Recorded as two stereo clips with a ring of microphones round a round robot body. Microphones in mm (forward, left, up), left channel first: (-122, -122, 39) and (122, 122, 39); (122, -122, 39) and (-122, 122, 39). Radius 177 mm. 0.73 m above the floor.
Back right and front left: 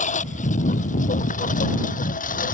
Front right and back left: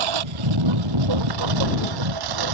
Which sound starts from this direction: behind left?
A lawn mower, at 0.0 s.